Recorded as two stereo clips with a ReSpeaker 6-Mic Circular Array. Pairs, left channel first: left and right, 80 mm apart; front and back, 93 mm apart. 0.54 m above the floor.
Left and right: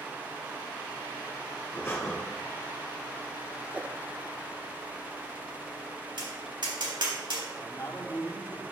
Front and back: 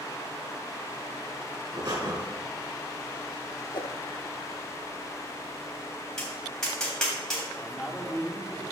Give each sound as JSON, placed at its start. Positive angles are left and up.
{"t": 1.7, "sound": "breathing", "azimuth_deg": 145, "distance_m": 4.0}
{"t": 3.7, "sound": "a whoosh", "azimuth_deg": -20, "distance_m": 0.5}
{"t": 6.2, "sound": "tapping", "azimuth_deg": -85, "distance_m": 3.0}
{"t": 7.5, "sound": "a man speaking", "azimuth_deg": 100, "distance_m": 1.2}